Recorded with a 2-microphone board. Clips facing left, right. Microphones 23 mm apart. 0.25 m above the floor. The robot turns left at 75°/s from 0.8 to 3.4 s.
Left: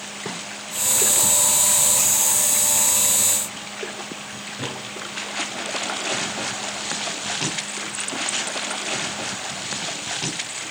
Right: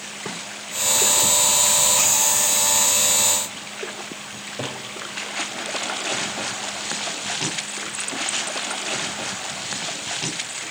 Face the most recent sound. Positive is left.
turn(degrees=-70)  # may be behind; listen again after turning